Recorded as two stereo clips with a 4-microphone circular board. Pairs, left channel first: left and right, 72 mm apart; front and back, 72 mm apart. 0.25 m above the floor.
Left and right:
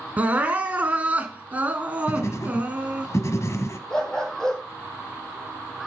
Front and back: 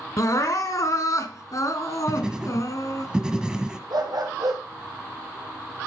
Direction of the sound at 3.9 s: 170° left.